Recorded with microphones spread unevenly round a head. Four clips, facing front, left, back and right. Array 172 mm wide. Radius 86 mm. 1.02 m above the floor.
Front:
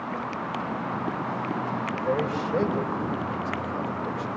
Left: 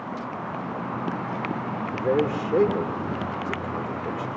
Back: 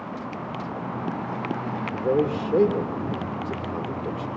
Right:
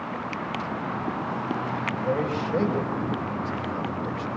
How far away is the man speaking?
About 2.5 m.